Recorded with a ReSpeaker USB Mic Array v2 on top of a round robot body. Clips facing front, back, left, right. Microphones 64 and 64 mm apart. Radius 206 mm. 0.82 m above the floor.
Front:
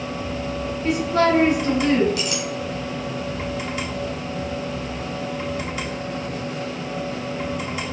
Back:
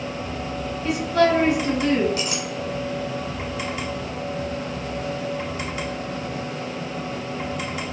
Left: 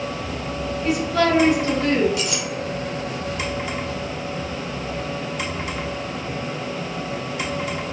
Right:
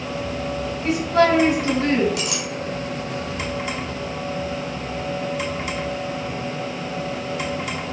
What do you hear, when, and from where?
0.8 s a woman speaking: 45° right, 1.5 m
2.2 s a clink: 120° right, 0.7 m